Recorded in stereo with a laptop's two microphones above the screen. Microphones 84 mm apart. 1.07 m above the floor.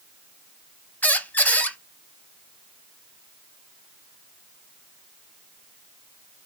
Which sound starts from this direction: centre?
A squeak, at 1.0 s.